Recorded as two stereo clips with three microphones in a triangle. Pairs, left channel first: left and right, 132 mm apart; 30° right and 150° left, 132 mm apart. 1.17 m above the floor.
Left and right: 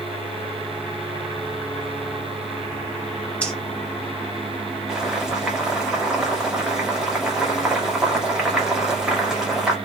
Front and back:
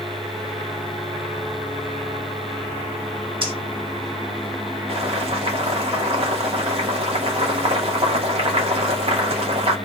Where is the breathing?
165° left, 1.2 m.